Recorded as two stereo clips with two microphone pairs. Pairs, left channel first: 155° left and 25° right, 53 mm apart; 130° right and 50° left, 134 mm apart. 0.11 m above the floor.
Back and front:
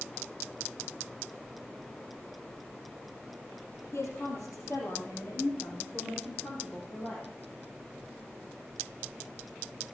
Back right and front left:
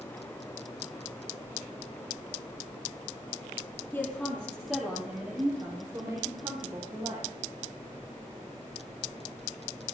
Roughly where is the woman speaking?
Behind.